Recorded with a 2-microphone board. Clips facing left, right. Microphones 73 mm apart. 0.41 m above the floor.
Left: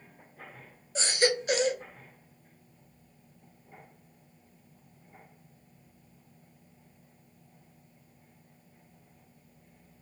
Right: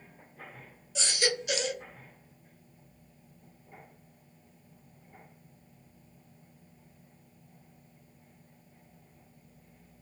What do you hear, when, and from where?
0.9 s a baby crying: 40° left (ahead or behind), 0.8 m